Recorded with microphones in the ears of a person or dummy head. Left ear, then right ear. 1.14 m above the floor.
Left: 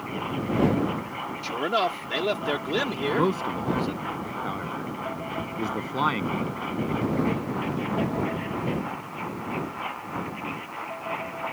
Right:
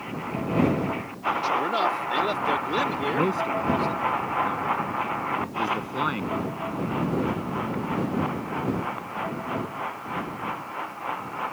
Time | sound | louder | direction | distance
1.4 | a man speaking | even | 20° left (ahead or behind) | ?
3.1 | a man speaking | left 1 dB | 20° left (ahead or behind) | ?